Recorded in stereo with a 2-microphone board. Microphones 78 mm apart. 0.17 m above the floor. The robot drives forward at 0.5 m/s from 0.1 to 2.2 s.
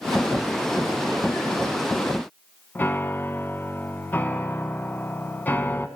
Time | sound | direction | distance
2.8 | a piano | 25° left (ahead or behind) | 1.3 m